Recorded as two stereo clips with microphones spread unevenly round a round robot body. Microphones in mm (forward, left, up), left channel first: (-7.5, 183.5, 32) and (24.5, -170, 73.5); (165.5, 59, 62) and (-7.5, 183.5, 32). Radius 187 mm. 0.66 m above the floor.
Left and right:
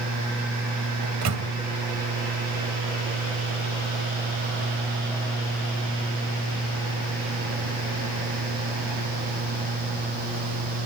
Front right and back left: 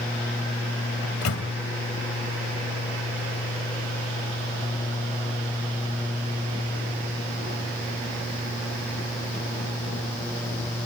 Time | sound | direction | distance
1.0 | a microwave | 35° right | 2.5 m